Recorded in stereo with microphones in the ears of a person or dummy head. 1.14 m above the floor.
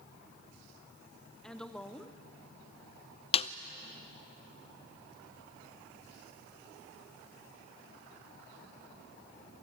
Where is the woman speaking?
5° left (ahead or behind), 1.3 m.